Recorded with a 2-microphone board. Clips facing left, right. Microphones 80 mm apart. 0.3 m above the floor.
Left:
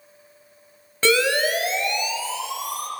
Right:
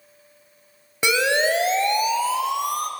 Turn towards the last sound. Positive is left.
turn(degrees=-60)  # may be behind; listen again after turning